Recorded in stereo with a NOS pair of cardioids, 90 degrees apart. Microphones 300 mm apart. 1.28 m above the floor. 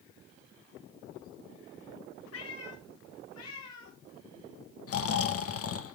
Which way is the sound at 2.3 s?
50° left.